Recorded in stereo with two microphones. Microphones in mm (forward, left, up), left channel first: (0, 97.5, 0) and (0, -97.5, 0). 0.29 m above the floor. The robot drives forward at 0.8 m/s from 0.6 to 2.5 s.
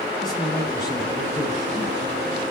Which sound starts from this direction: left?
A man speaking, at 0.2 s.